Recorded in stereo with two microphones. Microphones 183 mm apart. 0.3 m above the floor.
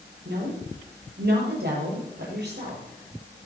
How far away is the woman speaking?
About 7.5 m.